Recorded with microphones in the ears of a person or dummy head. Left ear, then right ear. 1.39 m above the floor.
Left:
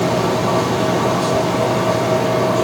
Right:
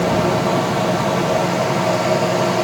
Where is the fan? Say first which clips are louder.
Even; 55° right (ahead or behind), 3.5 m.